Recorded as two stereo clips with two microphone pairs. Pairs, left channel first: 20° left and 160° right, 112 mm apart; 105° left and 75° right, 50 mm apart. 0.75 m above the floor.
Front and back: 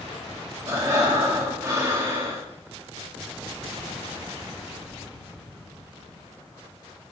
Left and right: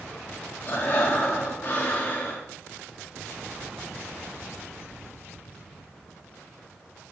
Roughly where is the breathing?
Behind left.